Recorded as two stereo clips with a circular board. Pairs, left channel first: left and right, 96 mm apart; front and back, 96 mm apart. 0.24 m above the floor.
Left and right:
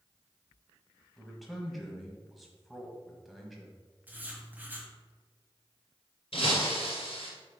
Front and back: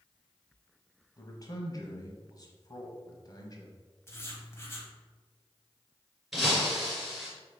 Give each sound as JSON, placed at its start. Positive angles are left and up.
{"t": 1.2, "sound": "a man speaking", "azimuth_deg": 0, "distance_m": 1.3}
{"t": 4.1, "sound": "writing", "azimuth_deg": -30, "distance_m": 1.3}
{"t": 6.3, "sound": "breaking glass", "azimuth_deg": 90, "distance_m": 2.0}